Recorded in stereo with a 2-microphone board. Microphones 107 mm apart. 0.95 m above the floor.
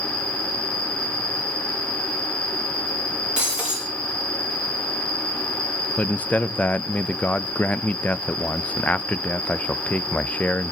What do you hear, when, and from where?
0.0 s an insect: 45° left (ahead or behind), 1.5 m
3.4 s breaking glass: 10° right (ahead or behind), 8 m
6.0 s a man speaking: 15° left (ahead or behind), 0.5 m